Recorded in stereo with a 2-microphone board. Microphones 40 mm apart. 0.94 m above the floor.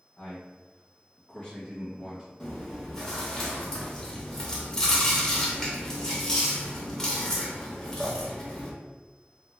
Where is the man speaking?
40° left (ahead or behind), 1.2 m; by 2.3 s 5° right (ahead or behind), 1.2 m.